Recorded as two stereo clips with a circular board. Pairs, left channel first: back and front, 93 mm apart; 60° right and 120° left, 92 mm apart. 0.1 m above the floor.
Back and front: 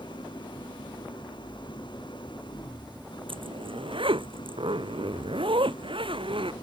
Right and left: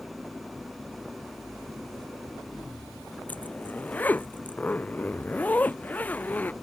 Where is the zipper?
15° left.